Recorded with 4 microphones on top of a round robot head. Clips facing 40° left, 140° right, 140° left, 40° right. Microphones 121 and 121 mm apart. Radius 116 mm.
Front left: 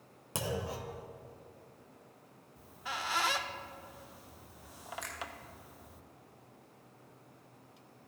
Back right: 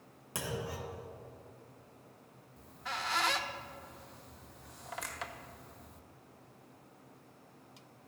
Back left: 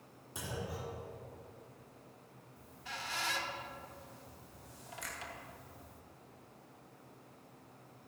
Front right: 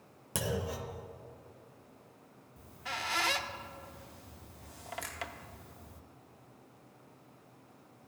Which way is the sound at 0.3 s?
25° right.